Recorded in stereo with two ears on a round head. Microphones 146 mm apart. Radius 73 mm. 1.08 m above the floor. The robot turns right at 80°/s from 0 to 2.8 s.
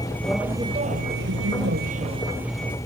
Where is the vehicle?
155° left; by 2.9 s 20° left.